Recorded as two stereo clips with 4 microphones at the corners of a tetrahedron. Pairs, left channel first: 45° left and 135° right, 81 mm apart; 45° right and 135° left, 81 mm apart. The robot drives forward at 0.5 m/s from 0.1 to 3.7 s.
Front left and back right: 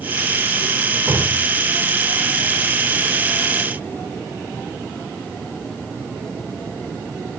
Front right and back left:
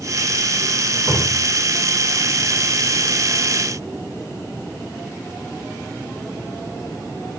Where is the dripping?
70° right, 2.5 m; by 3.2 s 95° right, 2.5 m.